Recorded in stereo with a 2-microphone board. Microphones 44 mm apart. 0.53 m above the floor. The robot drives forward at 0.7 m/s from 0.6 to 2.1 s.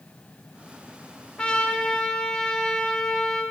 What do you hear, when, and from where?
1.4 s a trumpet: 20° left (ahead or behind), 1.1 m; by 3.4 s 15° left (ahead or behind), 1.3 m